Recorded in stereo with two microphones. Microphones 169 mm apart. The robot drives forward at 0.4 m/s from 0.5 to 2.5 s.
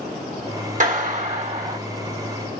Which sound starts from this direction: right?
A clap, at 0.8 s.